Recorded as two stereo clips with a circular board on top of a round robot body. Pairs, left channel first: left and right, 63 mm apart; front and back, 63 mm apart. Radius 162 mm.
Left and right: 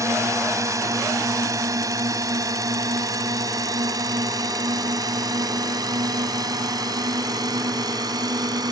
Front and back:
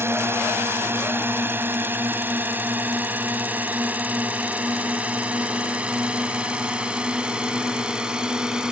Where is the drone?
130° right; by 8.7 s 105° right.